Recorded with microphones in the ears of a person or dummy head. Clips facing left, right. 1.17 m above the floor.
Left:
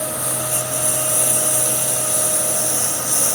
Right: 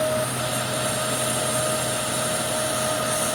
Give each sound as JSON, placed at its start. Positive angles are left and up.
{"t": 0.0, "sound": "a lawn mower", "side_deg": 70}